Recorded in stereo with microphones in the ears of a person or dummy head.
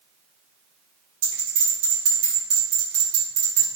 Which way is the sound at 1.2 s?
40° right (ahead or behind).